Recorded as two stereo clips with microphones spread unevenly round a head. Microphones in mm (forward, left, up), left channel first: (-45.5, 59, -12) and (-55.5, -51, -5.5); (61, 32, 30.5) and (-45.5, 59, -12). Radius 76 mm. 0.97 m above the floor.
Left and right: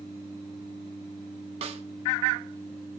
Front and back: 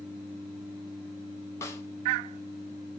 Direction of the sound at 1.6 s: 95° right.